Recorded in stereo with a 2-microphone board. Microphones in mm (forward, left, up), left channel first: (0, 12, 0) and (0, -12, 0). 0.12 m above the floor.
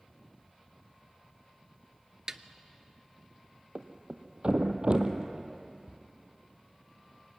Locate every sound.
2.3 s a snare drum: 25° right (ahead or behind), 0.6 m
3.8 s a thud: 45° right (ahead or behind), 1.3 m